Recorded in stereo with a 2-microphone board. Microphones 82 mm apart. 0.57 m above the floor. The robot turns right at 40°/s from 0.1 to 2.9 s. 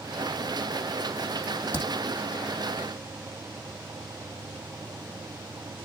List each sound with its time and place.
1.4 s a crack: 45° right (ahead or behind), 5 m; by 1.9 s 25° right (ahead or behind), 5 m